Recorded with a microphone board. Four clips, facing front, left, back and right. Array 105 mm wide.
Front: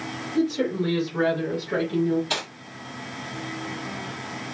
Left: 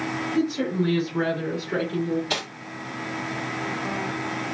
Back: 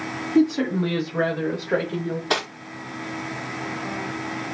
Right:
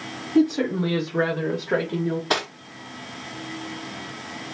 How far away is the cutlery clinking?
About 0.7 m.